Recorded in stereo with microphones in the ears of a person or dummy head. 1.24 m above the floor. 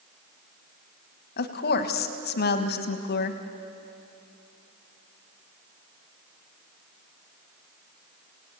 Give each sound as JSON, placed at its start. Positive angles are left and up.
{"t": 1.4, "sound": "a woman speaking", "side_deg": 50, "distance_m": 1.5}